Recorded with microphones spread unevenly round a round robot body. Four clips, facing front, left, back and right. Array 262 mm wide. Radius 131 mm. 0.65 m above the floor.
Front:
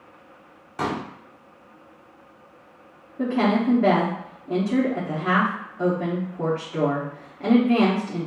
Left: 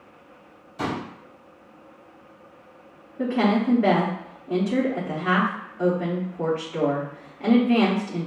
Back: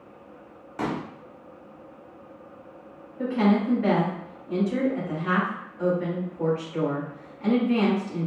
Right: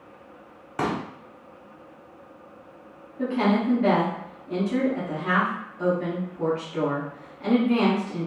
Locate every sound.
0.8 s a pop: 70° right, 1.4 m
3.2 s a woman speaking: 20° left, 1.6 m